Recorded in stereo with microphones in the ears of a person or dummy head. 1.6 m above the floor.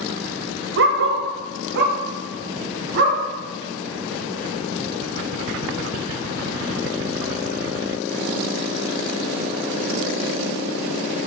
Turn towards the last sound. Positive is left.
turn(degrees=-60)  # may be behind; listen again after turning